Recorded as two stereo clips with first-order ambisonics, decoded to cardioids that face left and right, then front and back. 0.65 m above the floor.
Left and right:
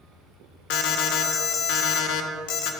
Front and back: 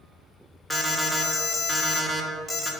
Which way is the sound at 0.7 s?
90° left.